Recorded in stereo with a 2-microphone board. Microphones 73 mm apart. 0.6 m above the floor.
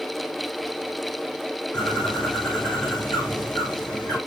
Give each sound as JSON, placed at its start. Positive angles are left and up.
{"t": 1.7, "sound": "a bird", "side_deg": 10, "distance_m": 5.0}